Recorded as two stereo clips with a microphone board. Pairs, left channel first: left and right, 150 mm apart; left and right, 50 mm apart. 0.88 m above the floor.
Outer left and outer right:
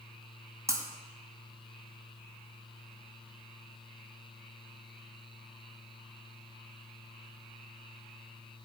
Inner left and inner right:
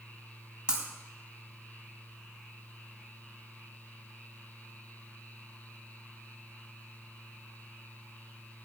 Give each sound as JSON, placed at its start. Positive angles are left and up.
{"t": 0.7, "sound": "breaking glass", "side_deg": -20, "distance_m": 2.0}